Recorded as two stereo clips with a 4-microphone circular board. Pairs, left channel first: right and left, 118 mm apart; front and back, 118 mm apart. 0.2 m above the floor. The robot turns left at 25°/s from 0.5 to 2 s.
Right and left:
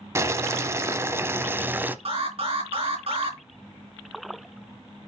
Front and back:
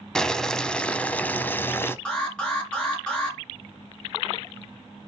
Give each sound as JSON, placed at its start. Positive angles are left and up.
{"t": 0.1, "sound": "boiling", "azimuth_deg": 80, "distance_m": 0.8}
{"t": 2.0, "sound": "an alarm", "azimuth_deg": 80, "distance_m": 4.0}